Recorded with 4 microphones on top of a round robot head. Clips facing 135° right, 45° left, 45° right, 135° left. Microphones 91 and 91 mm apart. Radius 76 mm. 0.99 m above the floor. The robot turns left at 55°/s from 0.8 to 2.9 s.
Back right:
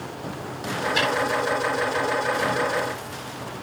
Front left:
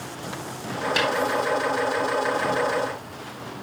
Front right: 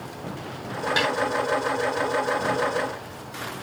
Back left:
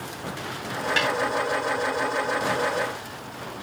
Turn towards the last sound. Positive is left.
turn(degrees=-70)